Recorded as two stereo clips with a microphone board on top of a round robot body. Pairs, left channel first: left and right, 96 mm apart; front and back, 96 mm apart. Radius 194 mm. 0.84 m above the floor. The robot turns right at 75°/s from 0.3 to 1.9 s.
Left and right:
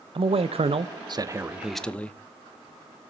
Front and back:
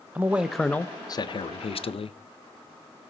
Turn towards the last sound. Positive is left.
turn(degrees=10)